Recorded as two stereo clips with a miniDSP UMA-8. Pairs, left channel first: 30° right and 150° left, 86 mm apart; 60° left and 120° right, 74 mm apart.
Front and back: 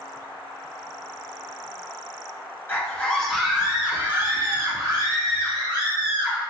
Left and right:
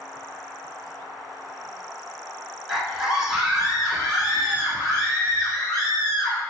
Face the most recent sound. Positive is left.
turn(degrees=155)